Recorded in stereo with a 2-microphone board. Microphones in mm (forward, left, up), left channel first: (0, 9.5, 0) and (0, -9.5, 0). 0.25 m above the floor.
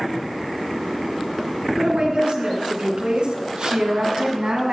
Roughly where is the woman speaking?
Right.